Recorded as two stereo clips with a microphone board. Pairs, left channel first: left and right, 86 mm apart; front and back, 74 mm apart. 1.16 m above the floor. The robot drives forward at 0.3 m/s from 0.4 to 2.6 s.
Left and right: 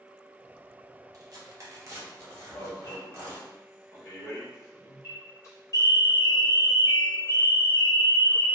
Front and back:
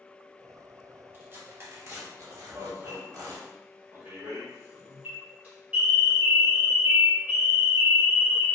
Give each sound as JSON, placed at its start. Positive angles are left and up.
{"t": 1.1, "sound": "tearing paper", "azimuth_deg": -125, "distance_m": 0.7}
{"t": 2.5, "sound": "an alarm", "azimuth_deg": 120, "distance_m": 1.2}